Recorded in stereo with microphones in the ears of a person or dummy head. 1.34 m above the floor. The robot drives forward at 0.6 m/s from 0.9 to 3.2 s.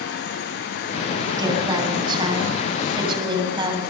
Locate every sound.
1.4 s a woman speaking: 25° right (ahead or behind), 8.5 m; by 3.8 s 30° right (ahead or behind), 7.5 m